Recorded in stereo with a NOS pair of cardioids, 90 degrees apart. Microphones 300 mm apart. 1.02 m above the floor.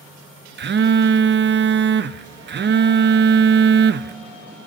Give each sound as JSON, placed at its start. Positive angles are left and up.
{"t": 0.6, "sound": "a phone buzzing", "azimuth_deg": -35, "distance_m": 0.8}